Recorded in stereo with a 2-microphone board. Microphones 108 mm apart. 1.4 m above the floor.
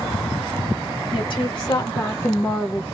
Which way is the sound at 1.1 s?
55° left (ahead or behind).